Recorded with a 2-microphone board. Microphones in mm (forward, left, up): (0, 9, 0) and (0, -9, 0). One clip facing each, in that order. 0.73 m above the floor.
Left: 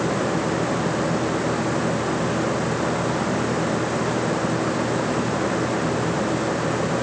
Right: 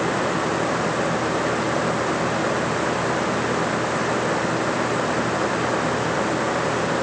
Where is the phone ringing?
I don't hear a phone ringing.